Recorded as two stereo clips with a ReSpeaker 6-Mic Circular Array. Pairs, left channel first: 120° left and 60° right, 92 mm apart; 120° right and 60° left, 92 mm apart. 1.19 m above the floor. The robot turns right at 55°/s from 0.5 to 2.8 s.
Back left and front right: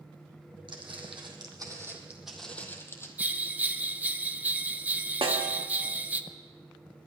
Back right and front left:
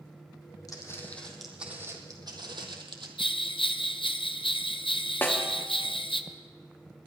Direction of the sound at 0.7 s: 75° right.